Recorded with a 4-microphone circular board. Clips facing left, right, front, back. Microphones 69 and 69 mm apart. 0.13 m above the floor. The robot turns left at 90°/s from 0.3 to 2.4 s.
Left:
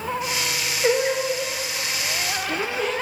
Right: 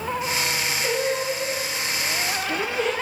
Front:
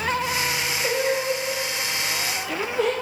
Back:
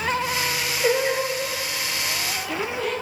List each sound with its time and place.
0.8 s singing: 145° left, 2 m; by 2.9 s 5° left, 2 m